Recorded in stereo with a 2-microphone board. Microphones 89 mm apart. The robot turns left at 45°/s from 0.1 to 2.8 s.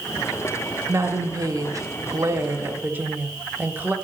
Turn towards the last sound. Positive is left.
turn(degrees=-140)